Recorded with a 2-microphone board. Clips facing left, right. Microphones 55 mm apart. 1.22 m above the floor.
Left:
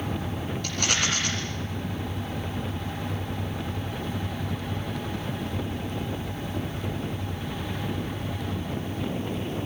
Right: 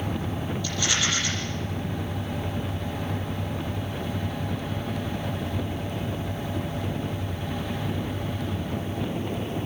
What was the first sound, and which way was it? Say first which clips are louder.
A rattle: even; 55° left (ahead or behind).